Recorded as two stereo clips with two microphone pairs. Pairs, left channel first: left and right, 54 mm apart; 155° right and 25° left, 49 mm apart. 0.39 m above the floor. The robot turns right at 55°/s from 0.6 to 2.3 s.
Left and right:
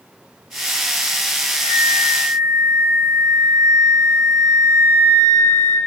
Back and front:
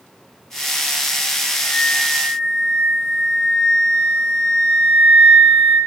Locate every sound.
1.5 s a flute: 120° left, 1.8 m; by 5.8 s 160° left, 1.8 m